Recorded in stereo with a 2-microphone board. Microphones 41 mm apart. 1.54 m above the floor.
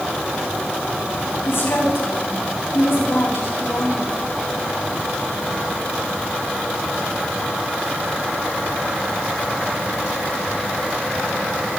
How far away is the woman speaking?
About 9 m.